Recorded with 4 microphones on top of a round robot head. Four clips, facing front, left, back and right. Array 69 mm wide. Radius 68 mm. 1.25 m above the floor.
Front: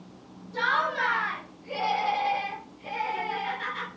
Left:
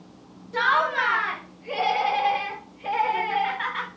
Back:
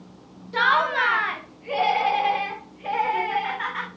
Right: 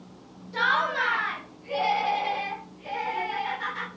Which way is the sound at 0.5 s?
160° left.